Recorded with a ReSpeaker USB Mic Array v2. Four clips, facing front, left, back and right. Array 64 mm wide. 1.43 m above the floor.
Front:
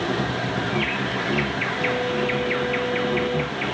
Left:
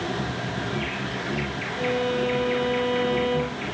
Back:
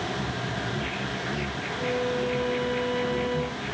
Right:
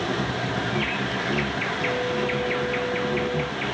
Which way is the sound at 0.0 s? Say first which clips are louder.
Right 2 dB, front 6 dB; 15° right.